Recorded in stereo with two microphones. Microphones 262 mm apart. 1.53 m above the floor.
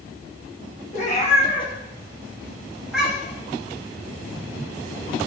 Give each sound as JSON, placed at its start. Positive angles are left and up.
{"t": 0.9, "sound": "a cat meowing", "side_deg": 30, "distance_m": 1.7}